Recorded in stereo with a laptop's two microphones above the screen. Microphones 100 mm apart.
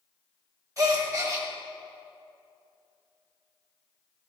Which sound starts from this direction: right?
A gasp, at 0.8 s.